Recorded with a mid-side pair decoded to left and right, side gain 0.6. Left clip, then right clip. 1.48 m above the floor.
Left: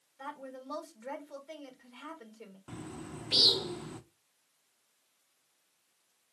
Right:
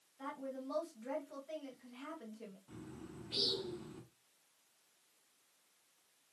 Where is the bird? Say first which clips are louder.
Left 8 dB; 65° left, 0.7 m.